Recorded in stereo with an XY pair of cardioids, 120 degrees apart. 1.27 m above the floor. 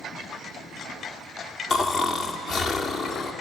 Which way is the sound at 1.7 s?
55° left.